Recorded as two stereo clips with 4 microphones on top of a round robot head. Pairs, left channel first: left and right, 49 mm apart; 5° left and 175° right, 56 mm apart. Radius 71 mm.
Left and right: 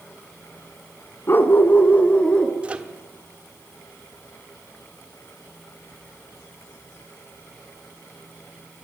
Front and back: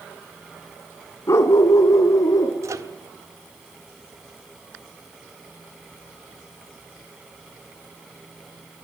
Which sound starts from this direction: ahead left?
A dog barking, at 1.3 s.